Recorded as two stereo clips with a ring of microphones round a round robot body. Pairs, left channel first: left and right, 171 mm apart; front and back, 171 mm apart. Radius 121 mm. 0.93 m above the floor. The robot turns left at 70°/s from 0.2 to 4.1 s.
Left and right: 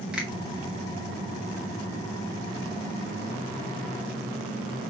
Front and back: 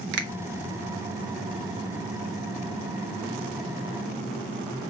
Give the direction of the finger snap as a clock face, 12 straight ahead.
6 o'clock.